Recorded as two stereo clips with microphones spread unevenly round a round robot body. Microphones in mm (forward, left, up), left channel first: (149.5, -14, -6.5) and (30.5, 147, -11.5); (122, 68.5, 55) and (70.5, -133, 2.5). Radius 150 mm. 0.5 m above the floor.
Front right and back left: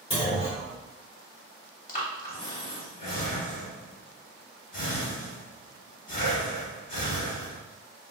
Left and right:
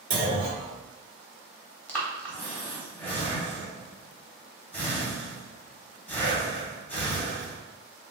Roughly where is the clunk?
Right.